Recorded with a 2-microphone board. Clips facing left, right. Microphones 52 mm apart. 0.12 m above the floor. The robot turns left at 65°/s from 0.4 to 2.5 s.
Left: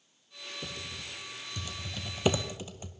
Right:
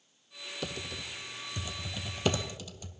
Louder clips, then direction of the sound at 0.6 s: Right 4 dB; 75° right (ahead or behind).